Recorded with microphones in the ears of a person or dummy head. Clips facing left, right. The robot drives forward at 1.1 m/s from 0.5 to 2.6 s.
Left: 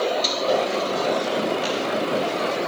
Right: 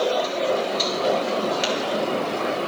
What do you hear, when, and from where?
1.6 s tapping: 85° right, 3.5 m